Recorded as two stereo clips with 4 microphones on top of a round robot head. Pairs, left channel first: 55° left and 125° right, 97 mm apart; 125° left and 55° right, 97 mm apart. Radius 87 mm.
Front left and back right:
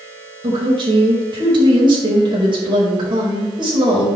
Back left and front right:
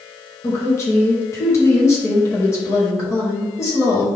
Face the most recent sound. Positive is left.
turn(degrees=-170)